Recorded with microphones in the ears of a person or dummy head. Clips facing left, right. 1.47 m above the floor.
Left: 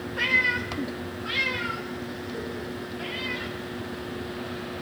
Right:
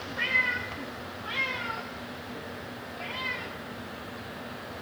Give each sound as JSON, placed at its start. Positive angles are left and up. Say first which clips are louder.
{"t": 0.2, "sound": "a cat meowing", "louder": "left 5 dB", "side_deg": 55, "distance_m": 1.2}